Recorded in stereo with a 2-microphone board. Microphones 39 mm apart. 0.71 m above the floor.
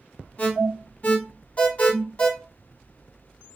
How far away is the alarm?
About 1.4 m.